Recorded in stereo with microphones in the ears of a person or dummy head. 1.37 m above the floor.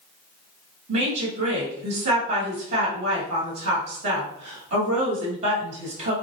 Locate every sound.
0.9 s a woman speaking: 40° right (ahead or behind), 1.1 m